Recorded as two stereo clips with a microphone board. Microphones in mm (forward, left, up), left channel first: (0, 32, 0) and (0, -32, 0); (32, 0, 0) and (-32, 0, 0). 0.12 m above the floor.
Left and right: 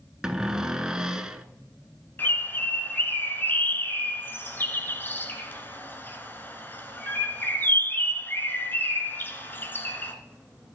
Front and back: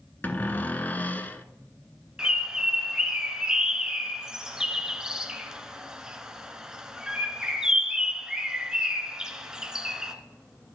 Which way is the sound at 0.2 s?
20° right.